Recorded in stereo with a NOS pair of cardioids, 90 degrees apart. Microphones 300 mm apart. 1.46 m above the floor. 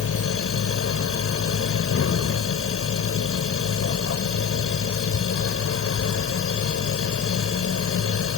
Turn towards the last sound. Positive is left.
turn(degrees=50)